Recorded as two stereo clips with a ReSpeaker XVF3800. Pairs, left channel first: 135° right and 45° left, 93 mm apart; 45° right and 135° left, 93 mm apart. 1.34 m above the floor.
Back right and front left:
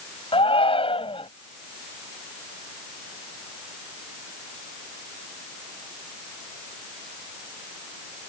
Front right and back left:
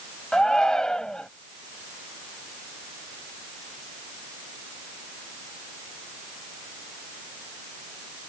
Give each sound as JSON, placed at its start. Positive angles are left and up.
{"t": 0.3, "sound": "a shout", "azimuth_deg": -130}